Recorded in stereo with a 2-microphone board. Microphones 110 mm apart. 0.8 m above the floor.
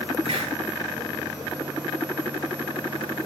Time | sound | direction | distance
0.2 | a hiss | 70° right (ahead or behind) | 8.5 m